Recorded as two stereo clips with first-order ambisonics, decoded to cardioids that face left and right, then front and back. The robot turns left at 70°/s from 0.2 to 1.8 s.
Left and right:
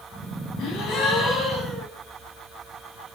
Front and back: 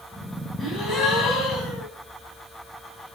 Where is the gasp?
70° left, 1.6 m; by 1.9 s 15° right, 1.6 m.